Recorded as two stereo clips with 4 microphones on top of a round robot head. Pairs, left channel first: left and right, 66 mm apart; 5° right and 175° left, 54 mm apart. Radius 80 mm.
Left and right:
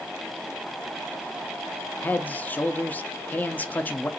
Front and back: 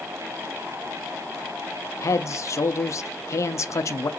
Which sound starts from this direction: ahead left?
A man speaking, at 2.0 s.